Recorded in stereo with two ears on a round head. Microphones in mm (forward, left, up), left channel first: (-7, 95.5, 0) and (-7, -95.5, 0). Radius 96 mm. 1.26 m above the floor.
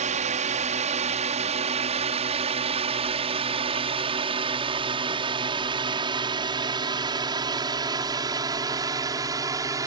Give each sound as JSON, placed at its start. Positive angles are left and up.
{"t": 0.0, "sound": "a drone", "side_deg": -35}